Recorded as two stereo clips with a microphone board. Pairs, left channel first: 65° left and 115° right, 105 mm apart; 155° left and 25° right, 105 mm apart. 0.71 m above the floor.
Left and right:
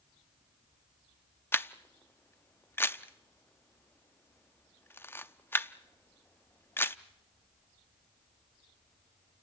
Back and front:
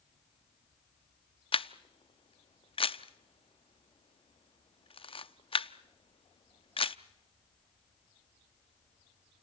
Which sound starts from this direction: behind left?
A camera shutter, at 1.5 s.